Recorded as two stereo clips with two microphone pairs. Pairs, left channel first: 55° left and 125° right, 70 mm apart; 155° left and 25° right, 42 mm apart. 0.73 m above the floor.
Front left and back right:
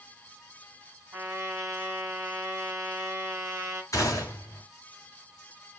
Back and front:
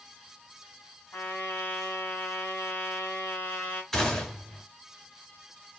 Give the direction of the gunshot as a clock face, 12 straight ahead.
9 o'clock.